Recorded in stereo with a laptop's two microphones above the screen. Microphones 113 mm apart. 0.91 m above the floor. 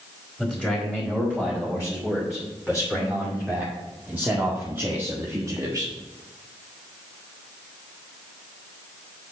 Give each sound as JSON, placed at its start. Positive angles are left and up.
{"t": 0.4, "sound": "a man speaking", "side_deg": 0, "distance_m": 3.5}